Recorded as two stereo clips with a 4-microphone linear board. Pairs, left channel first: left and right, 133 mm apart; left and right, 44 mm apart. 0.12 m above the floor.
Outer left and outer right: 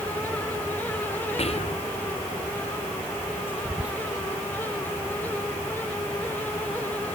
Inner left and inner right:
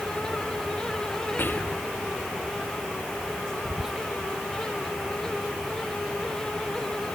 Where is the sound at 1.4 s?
50° left (ahead or behind).